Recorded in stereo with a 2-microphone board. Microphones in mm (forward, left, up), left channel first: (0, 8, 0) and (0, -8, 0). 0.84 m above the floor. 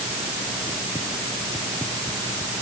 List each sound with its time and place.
Only background noise.